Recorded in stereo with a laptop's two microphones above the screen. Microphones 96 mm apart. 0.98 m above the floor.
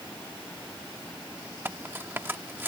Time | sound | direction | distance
1.6 | cutlery clinking | 20° right (ahead or behind) | ?